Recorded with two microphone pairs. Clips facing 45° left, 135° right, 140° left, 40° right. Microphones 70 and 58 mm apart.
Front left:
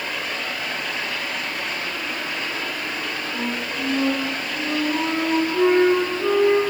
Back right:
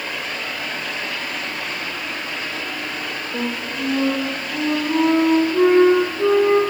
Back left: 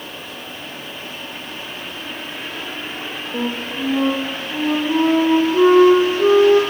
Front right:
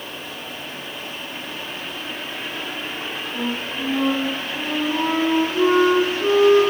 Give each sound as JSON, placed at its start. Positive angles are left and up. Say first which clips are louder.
{"t": 3.3, "sound": "a flute", "louder": "back right 3 dB, back left 3 dB", "azimuth_deg": 175, "distance_m": 4.5}